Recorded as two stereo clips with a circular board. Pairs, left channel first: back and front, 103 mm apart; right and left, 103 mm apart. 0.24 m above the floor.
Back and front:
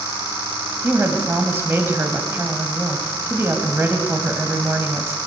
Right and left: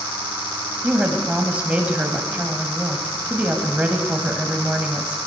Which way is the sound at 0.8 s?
35° left.